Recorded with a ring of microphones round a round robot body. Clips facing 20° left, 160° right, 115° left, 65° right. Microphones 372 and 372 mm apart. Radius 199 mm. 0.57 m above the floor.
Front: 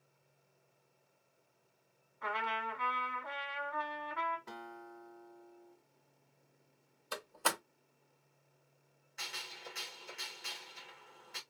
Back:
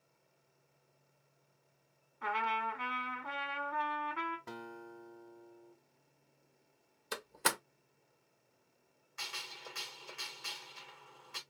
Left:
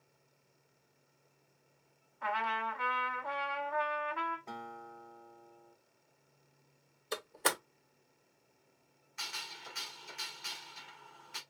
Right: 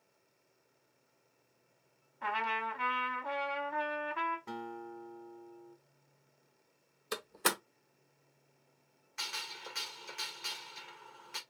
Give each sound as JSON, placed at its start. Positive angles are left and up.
{"t": 2.2, "sound": "a trumpet", "azimuth_deg": -120, "distance_m": 1.2}
{"t": 4.5, "sound": "a guitar", "azimuth_deg": -140, "distance_m": 0.6}
{"t": 7.1, "sound": "a door slam", "azimuth_deg": -130, "distance_m": 0.8}
{"t": 9.2, "sound": "a gunshot", "azimuth_deg": -80, "distance_m": 1.9}